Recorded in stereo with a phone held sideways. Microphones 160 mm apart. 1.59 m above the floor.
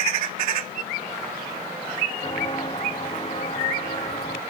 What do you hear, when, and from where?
2.2 s footsteps: 30° left (ahead or behind); by 4.4 s 45° left (ahead or behind)